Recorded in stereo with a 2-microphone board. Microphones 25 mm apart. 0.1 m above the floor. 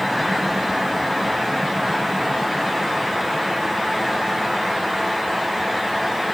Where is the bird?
I don't hear a bird.